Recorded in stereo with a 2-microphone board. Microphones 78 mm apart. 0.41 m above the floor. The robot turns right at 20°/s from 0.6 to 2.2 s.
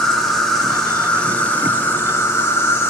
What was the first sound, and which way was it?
An insect, 5° left.